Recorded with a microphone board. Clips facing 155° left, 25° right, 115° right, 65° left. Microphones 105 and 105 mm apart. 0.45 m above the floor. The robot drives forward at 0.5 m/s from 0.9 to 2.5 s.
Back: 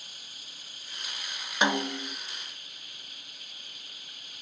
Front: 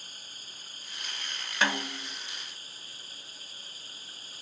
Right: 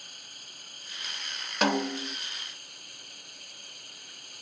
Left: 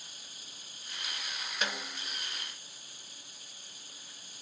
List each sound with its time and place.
0.0 s running water: 75° right; by 4.4 s 80° right
1.6 s a snare drum: 130° right; by 2.2 s 145° right